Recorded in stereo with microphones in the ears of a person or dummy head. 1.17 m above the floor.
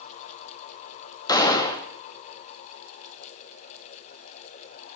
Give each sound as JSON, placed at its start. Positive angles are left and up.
{"t": 1.3, "sound": "a gunshot", "side_deg": 30, "distance_m": 2.0}